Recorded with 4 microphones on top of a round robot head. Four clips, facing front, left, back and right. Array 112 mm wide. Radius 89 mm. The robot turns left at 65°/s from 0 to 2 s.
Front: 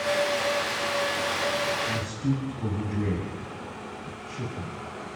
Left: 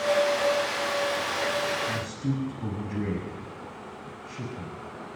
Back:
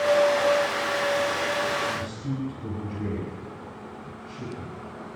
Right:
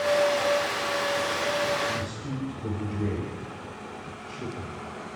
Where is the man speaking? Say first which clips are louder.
Left 1 dB, front 2 dB; 55° left, 7 m; by 4.8 s 45° left, 7 m.